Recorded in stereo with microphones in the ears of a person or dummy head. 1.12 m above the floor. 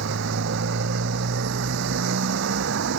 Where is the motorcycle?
75° right (ahead or behind).